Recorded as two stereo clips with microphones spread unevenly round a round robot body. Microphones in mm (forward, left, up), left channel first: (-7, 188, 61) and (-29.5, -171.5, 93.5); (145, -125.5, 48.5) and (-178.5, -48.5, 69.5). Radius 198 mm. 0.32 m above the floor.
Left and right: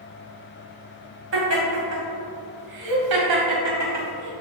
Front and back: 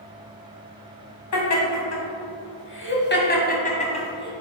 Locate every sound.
1.3 s laughter: 40° right, 2 m; by 4.3 s 90° right, 2 m